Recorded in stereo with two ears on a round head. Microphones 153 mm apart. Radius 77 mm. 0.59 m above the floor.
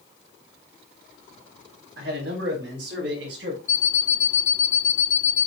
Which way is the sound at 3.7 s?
35° left (ahead or behind).